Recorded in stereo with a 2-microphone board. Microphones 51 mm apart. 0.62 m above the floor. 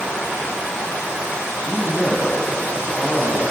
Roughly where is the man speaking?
Centre.